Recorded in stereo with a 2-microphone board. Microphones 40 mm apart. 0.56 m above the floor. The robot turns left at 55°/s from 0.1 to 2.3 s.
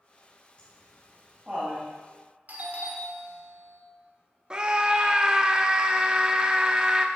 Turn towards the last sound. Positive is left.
turn(degrees=-20)  # may be behind; listen again after turning